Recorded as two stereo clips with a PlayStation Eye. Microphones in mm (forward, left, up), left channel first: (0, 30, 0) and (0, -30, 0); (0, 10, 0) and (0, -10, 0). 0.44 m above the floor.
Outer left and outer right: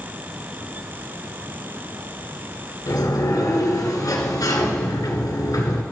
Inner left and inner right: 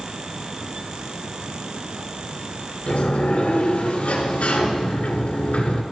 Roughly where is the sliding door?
Left.